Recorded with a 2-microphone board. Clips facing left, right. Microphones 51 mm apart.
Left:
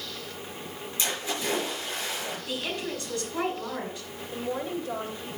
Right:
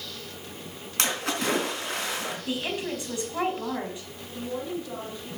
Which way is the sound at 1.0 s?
70° right (ahead or behind).